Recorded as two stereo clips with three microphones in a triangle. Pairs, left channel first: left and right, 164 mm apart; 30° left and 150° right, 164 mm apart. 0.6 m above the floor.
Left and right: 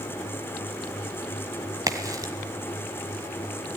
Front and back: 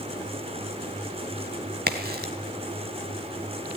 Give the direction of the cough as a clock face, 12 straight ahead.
No cough in this recording.